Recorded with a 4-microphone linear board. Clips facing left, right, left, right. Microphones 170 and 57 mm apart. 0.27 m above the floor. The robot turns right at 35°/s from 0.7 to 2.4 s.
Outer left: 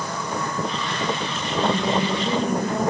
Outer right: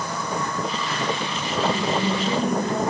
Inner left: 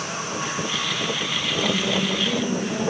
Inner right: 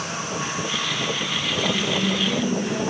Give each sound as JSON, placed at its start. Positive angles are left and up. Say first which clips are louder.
{"t": 1.6, "sound": "a woman speaking", "louder": "outer left 1 dB, even", "side_deg": 30, "distance_m": 6.5}